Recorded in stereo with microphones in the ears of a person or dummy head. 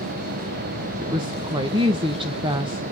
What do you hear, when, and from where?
1.0 s a woman speaking: 25° right (ahead or behind), 0.6 m